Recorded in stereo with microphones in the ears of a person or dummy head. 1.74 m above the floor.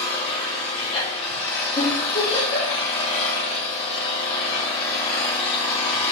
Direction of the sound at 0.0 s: 35° left (ahead or behind).